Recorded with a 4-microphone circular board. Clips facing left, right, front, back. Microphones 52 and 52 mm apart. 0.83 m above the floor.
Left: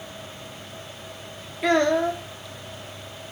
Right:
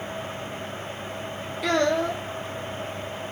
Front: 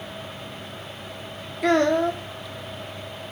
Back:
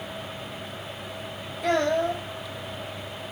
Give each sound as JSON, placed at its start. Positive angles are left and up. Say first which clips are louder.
{"t": 1.6, "sound": "a child speaking", "louder": "left 3 dB, front 4 dB", "azimuth_deg": 20, "distance_m": 1.0}